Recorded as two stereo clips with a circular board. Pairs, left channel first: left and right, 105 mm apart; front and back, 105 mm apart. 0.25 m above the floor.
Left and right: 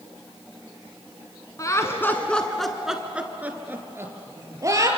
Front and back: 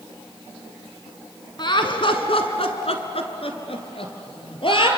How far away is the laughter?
About 2 m.